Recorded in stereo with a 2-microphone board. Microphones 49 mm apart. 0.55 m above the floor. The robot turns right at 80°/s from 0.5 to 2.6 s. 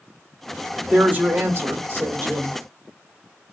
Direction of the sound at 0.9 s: 165° right.